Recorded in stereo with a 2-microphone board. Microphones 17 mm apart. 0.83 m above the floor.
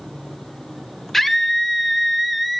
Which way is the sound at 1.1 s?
10° left (ahead or behind).